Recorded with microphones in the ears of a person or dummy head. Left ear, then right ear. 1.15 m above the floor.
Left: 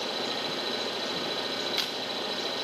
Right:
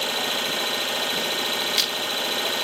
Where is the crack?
25° right (ahead or behind), 1.7 m.